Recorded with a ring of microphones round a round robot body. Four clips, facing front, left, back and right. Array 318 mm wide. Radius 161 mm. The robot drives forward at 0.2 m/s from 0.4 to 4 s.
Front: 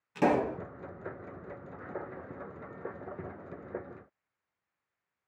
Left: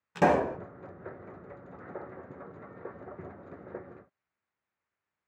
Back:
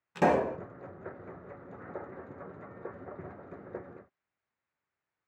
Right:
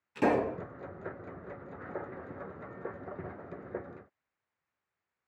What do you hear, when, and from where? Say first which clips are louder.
0.1 s a pop: left 3 dB, back 1 dB; 110° left, 0.8 m; by 0.6 s 115° left, 0.8 m